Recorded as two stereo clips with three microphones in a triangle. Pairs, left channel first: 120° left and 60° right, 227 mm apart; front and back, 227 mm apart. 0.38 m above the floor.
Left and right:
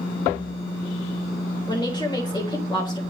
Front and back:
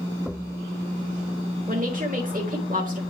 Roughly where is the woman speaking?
Behind.